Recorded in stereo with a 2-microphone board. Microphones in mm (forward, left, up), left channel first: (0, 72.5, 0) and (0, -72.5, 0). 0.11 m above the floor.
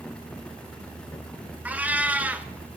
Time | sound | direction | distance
1.6 | a cat meowing | 10° right (ahead or behind) | 0.6 m